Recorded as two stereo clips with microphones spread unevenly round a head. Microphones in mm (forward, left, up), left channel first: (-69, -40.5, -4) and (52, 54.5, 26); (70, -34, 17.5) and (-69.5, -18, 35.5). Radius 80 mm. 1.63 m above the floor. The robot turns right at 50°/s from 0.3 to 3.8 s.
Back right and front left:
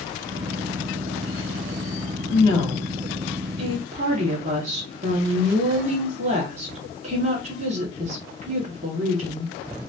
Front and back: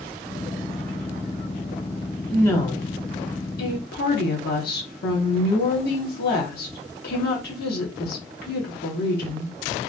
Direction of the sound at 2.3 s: 85° right.